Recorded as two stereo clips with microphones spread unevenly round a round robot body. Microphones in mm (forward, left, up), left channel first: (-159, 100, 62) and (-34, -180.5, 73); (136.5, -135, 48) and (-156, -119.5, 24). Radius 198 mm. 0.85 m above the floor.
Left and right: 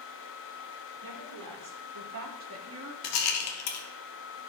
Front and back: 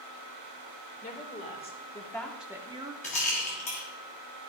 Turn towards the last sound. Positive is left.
turn(degrees=70)